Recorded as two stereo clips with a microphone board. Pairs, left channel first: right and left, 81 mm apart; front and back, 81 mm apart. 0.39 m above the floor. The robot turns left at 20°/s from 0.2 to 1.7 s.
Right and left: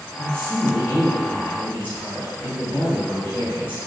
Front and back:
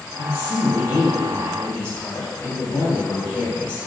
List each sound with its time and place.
0.2 s a woman speaking: 25° right, 1.2 m; by 3.9 s 55° right, 1.2 m